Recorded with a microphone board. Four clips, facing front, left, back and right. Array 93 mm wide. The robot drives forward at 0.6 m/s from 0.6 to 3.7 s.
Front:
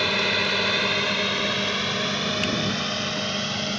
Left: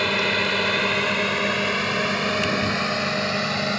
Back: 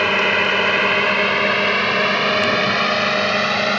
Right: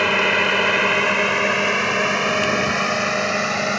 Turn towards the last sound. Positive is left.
turn(degrees=-160)